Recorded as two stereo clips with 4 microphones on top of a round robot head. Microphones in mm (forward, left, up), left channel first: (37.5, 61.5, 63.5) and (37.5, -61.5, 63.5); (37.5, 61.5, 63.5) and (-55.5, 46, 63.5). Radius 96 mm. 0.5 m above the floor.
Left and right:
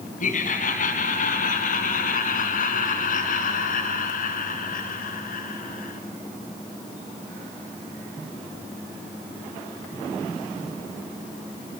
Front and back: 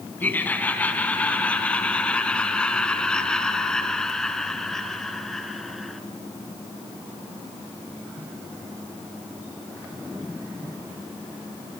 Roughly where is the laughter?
Left.